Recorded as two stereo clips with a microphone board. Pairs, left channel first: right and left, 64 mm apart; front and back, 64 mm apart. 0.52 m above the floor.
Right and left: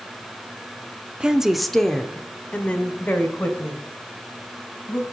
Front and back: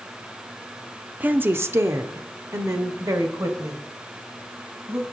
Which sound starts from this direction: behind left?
A woman speaking, at 1.2 s.